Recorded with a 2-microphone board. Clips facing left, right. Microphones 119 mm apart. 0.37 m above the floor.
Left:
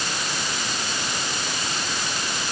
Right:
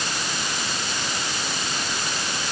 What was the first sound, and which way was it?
Only background noise.